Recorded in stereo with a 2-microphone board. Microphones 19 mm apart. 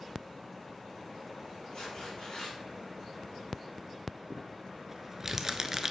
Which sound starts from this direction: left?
Tearing paper, at 1.7 s.